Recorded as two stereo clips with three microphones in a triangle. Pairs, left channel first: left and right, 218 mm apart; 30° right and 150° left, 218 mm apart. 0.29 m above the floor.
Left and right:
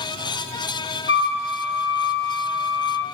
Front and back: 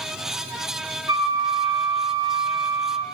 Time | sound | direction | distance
1.1 | a flute | 80° left | 3 m